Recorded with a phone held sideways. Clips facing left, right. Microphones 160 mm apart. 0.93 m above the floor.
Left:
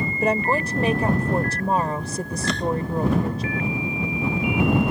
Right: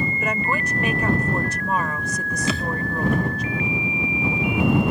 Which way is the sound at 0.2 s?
35° left (ahead or behind).